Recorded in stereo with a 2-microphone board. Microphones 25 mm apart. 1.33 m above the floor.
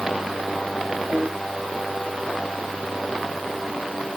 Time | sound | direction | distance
1.1 | a piano | 70° right (ahead or behind) | 3 m